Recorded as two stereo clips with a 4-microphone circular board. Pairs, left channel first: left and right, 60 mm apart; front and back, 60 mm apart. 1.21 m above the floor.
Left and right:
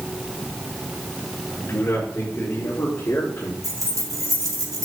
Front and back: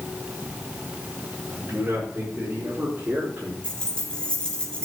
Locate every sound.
1.5 s a man speaking: 140° left, 6 m; by 3.5 s 125° left, 3.5 m
3.6 s keys jangling: 75° right, 2.5 m